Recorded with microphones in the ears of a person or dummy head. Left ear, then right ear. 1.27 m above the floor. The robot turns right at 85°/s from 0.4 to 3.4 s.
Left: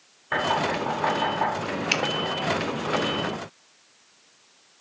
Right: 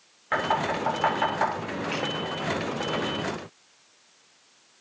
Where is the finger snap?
75° left (ahead or behind), 1.2 m; by 2.0 s 70° left (ahead or behind), 1.2 m.